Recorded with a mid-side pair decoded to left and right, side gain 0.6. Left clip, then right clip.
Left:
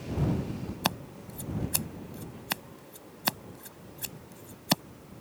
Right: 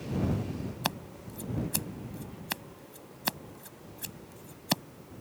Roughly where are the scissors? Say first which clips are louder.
Left 3 dB; ahead.